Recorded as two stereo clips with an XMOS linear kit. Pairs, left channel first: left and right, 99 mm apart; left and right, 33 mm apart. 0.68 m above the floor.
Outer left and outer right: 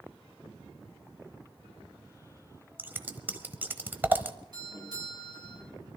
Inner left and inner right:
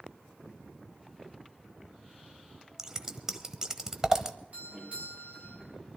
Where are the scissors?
20° right (ahead or behind), 1.0 m.